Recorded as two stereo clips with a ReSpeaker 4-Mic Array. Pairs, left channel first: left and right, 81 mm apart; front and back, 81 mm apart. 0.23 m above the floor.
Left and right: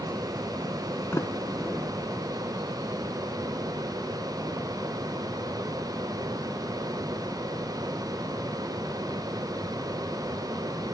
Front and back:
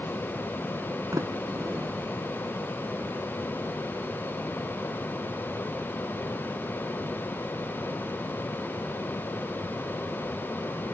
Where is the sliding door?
145° left, 1.2 m.